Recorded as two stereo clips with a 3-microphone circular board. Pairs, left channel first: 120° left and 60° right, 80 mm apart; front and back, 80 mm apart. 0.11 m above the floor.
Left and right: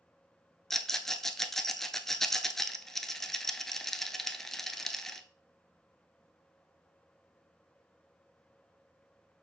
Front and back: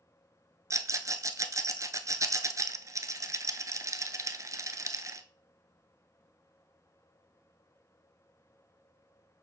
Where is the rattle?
160° right, 0.6 m.